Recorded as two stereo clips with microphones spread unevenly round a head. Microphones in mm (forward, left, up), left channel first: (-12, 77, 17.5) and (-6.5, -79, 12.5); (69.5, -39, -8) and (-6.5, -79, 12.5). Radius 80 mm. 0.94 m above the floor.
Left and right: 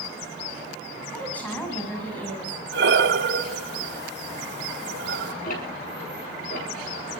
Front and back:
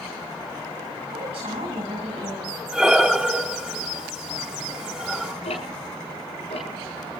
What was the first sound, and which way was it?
A woman speaking, 175° left.